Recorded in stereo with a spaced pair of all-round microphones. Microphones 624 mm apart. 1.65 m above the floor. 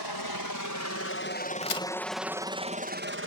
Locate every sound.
0.0 s a helicopter: 40° left (ahead or behind); by 3.3 s 20° right (ahead or behind)
1.6 s a crack: 55° left (ahead or behind)